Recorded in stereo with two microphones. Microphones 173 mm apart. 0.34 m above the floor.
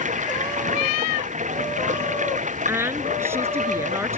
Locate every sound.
0.0 s running water: 45° right (ahead or behind)
2.7 s a woman speaking: 15° right (ahead or behind)